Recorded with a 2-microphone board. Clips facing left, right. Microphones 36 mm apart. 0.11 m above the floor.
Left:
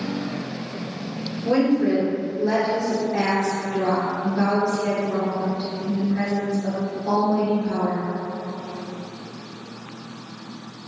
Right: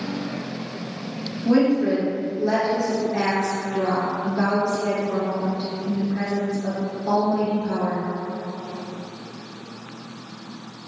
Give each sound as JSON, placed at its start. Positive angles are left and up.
{"t": 1.4, "sound": "a woman speaking", "side_deg": 20, "distance_m": 1.9}